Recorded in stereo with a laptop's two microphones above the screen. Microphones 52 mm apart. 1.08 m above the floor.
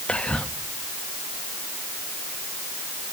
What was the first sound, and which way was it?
Whispering, 25° left (ahead or behind).